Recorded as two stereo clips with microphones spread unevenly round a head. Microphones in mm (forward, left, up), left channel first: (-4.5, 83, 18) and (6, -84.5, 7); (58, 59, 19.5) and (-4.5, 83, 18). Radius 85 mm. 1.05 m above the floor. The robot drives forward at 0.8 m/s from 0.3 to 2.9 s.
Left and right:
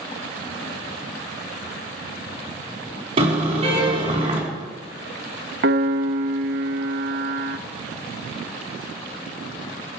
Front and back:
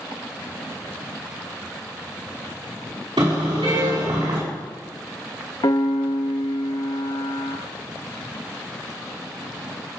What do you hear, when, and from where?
3.2 s a car horn: 145° right, 5.5 m
5.6 s a piano: 70° right, 1.2 m